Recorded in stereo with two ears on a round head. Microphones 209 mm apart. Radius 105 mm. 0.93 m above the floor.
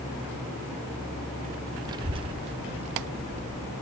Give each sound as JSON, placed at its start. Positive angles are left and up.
{"t": 1.9, "sound": "a child speaking", "side_deg": -15, "distance_m": 0.6}